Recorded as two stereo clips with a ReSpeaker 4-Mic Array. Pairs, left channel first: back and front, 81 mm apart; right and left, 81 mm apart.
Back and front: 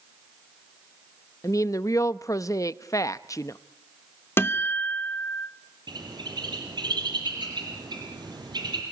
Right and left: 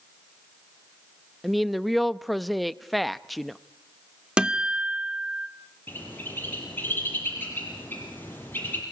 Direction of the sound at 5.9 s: 25° right.